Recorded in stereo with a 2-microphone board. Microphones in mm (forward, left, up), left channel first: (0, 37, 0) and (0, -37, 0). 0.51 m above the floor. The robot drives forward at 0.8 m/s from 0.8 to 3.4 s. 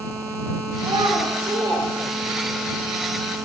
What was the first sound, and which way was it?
A child speaking, 75° right (ahead or behind).